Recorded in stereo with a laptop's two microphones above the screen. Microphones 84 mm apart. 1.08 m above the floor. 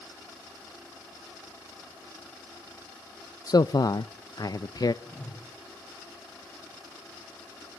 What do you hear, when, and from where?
3.5 s a man speaking: 50° left (ahead or behind), 0.5 m
5.0 s a whoosh: 20° left (ahead or behind), 6.5 m